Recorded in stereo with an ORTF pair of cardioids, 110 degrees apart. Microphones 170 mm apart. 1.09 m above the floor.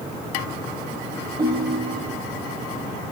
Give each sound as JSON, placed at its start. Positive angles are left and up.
{"t": 1.4, "sound": "a ringtone", "azimuth_deg": -20, "distance_m": 5.0}